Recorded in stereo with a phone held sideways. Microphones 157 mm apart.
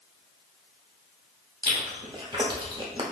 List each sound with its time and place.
1.6 s chewing: 30° right (ahead or behind), 0.8 m